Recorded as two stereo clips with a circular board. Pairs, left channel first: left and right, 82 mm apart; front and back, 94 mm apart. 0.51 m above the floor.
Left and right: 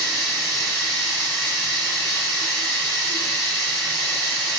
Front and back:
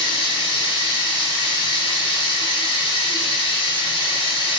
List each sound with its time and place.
0.0 s running water: 5° right, 1.8 m